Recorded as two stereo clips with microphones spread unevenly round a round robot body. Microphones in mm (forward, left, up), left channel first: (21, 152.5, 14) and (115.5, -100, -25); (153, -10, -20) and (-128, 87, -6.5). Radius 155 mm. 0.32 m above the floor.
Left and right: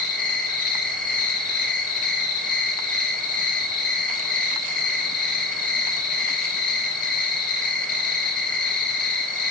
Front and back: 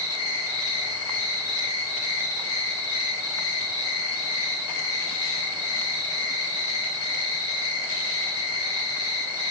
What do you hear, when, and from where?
0.0 s an insect: 25° left, 1.9 m